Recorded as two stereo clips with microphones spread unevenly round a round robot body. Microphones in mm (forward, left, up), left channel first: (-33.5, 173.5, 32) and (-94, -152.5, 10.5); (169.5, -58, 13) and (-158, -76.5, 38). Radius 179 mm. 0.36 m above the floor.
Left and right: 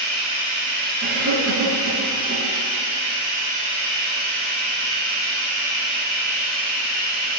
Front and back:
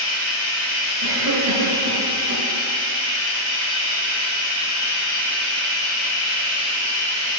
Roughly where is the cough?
Behind right.